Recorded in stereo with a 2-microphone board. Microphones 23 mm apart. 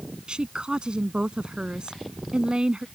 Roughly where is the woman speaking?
Right.